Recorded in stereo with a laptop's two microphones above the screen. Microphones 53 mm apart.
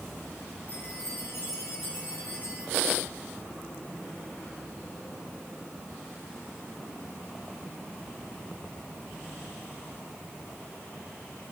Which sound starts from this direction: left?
A chime, at 0.7 s.